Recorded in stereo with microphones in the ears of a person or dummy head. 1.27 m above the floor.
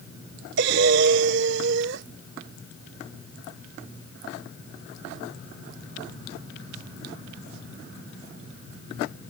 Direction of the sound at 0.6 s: 60° right (ahead or behind).